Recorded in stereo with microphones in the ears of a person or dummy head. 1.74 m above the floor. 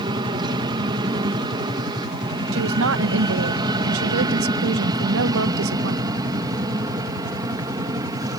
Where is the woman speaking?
80° right.